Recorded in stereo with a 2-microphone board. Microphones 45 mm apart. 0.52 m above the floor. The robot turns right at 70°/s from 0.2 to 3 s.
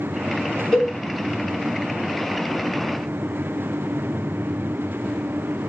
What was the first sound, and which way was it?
A cowbell, centre (ahead or behind).